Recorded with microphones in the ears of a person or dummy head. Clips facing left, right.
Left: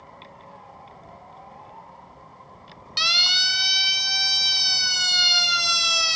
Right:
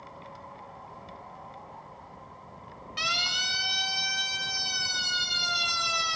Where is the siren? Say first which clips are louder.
Left 3 dB; 50° left (ahead or behind), 4.5 m; by 6.2 s 80° left, 3.5 m.